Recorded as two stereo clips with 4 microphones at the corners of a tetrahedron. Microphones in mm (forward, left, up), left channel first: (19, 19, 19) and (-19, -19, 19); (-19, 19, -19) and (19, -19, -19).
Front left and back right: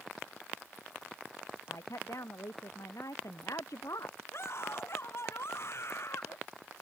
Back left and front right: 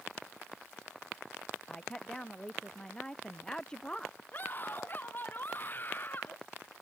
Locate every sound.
1.7 s a woman speaking: 60° left
4.3 s a scream: 80° left